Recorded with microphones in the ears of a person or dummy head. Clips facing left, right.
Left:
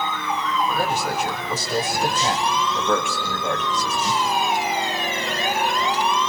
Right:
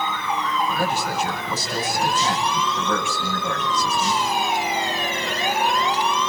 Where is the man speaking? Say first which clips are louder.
Left 1 dB; 50° left (ahead or behind), 5 m.